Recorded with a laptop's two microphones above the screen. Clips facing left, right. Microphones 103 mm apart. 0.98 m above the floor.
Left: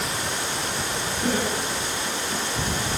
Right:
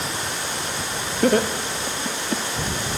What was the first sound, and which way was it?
Laughter, 70° right (ahead or behind).